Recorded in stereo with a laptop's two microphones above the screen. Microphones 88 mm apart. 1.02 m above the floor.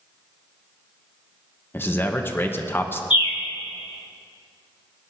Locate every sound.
1.7 s a man speaking: 25° left (ahead or behind), 0.9 m
3.1 s a bird: 70° left (ahead or behind), 1.1 m